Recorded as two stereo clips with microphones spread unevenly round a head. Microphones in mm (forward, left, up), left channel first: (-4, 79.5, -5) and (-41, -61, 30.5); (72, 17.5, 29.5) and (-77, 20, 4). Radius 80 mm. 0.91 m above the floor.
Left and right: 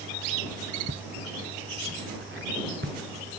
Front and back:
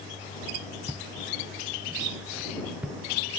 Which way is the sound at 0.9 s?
95° right.